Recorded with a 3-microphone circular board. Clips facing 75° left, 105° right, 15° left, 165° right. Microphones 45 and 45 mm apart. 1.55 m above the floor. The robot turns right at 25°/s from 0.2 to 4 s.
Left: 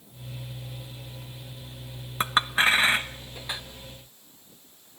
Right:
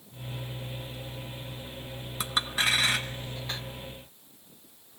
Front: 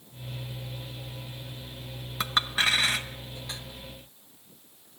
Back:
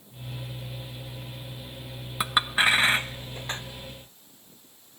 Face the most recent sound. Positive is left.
turn(degrees=160)